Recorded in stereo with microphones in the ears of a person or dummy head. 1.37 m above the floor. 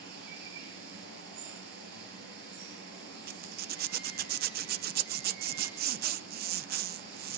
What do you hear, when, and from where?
0.0 s running water: 70° right (ahead or behind), 6 m
3.3 s a zipper: 55° right (ahead or behind), 0.7 m